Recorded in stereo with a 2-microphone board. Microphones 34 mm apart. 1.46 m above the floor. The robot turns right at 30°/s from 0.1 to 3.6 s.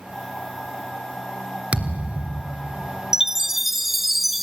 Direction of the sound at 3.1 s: 15° right (ahead or behind).